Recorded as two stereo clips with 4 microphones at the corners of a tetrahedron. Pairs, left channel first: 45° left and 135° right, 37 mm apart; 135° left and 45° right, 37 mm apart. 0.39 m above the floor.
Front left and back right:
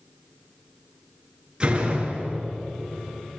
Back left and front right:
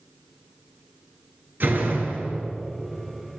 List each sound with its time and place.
1.6 s a door slam: 75° right, 4 m